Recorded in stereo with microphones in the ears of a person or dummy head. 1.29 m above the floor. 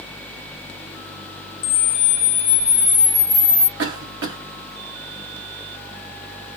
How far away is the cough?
About 0.6 m.